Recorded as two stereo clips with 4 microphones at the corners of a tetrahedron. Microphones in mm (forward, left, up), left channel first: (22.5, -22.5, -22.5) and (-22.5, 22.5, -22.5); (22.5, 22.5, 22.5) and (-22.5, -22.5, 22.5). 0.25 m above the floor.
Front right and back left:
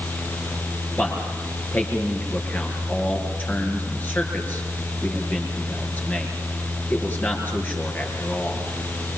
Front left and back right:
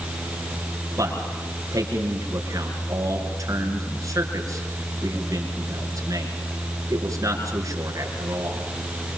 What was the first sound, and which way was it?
A man speaking, 105° right.